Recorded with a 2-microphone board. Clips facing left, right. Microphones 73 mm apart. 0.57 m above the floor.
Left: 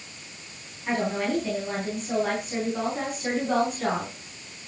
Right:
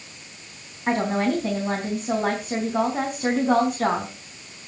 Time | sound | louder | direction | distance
0.9 | a woman speaking | right 4 dB | 45° right (ahead or behind) | 4 m